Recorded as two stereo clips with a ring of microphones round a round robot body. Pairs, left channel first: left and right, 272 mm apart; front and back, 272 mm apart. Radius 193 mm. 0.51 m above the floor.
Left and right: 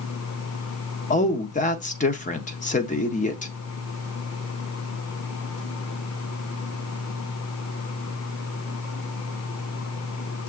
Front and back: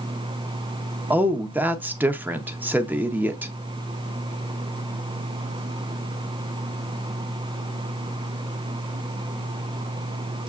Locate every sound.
1.1 s a woman speaking: 105° left, 0.7 m